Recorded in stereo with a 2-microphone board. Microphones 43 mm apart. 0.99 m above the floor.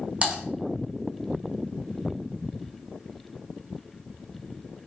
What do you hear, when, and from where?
0.2 s typing on a keyboard: 25° right (ahead or behind), 0.7 m